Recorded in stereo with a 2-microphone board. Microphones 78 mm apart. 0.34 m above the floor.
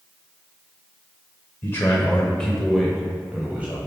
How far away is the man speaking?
About 1.1 m.